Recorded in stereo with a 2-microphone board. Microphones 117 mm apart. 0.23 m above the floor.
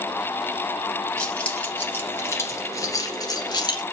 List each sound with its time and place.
1.2 s keys jangling: 10° left (ahead or behind), 2.5 m; by 3.8 s 40° left (ahead or behind), 2.5 m